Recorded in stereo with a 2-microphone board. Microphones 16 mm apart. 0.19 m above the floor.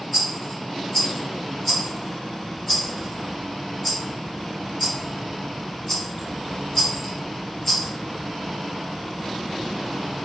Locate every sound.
0.1 s a rattle: 15° left (ahead or behind), 1.8 m